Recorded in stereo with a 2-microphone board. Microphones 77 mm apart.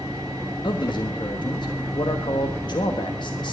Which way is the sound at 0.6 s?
80° left.